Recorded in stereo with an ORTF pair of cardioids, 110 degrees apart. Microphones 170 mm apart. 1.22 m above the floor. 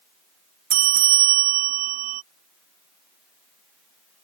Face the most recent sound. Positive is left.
turn(degrees=-60)